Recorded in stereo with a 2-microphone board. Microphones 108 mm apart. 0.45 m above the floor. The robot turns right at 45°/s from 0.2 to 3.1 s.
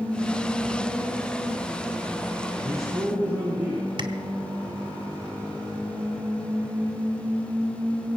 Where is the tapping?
55° right (ahead or behind), 1.7 m.